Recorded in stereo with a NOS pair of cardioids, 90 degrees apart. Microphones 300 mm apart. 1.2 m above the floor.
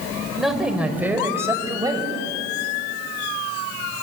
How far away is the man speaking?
About 4 m.